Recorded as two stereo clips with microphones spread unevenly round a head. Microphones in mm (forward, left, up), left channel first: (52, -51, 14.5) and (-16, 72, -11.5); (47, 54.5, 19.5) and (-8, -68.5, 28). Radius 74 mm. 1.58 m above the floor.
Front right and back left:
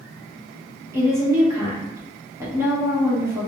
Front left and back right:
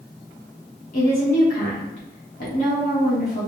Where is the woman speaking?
50° left, 1.3 m.